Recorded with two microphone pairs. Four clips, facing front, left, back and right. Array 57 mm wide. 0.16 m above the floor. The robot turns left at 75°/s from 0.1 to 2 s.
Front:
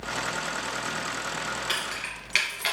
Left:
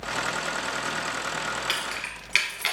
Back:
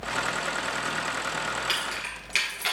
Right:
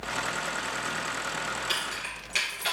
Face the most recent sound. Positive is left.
turn(degrees=70)